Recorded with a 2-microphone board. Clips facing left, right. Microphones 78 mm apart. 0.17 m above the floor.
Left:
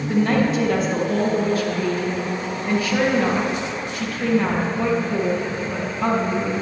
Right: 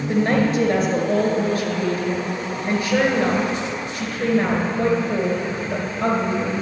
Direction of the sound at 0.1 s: 50° right (ahead or behind).